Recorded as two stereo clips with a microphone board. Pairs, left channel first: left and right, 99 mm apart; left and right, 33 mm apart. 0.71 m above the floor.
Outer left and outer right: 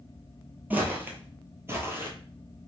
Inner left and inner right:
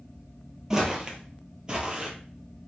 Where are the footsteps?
20° right (ahead or behind), 0.8 m; by 2.1 s 25° right (ahead or behind), 0.8 m.